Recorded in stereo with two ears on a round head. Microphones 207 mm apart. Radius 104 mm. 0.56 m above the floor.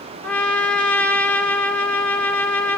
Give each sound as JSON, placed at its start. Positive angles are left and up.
{"t": 0.2, "sound": "a trumpet", "side_deg": 5, "distance_m": 2.0}